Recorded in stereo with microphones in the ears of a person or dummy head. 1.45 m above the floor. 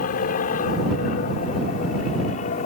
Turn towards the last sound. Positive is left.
turn(degrees=45)  # may be behind; listen again after turning